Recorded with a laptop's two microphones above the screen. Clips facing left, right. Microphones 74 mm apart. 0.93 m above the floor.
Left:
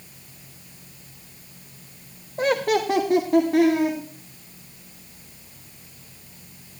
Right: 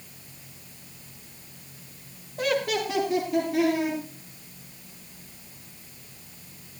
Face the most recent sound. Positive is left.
turn(degrees=60)  # may be behind; listen again after turning